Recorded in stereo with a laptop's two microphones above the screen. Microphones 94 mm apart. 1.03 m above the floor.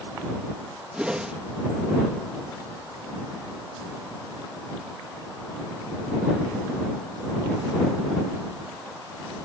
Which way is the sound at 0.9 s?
10° right (ahead or behind).